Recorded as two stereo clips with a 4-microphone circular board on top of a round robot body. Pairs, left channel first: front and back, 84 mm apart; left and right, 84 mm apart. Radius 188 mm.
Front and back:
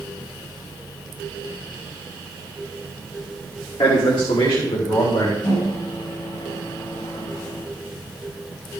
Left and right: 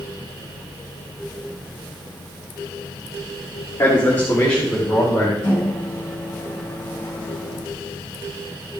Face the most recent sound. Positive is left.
turn(degrees=20)